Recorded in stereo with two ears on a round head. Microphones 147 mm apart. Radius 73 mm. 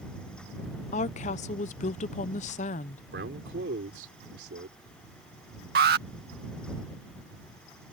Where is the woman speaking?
45° left (ahead or behind).